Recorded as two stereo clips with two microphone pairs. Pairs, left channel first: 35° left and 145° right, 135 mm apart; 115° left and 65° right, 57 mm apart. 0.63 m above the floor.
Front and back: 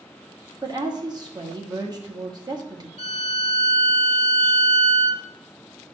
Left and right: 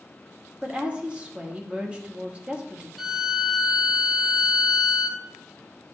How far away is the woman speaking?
About 1.2 m.